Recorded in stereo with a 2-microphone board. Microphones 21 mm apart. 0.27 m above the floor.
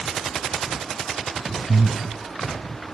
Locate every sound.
1.7 s breathing: 50° right (ahead or behind), 0.5 m